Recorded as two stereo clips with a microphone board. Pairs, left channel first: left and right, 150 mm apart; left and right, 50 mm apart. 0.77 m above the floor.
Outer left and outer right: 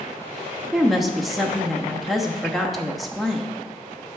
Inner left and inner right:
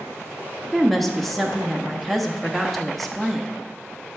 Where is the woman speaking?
Centre (ahead or behind), 1.0 m.